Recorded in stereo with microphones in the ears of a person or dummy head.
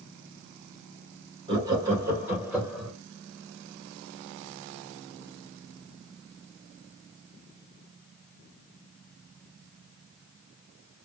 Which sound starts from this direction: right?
Laughter, at 1.5 s.